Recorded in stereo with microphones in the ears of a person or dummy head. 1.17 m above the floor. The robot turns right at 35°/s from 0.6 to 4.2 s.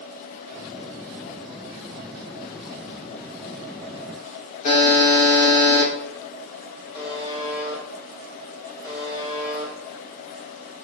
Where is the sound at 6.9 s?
20° left (ahead or behind), 1.1 m.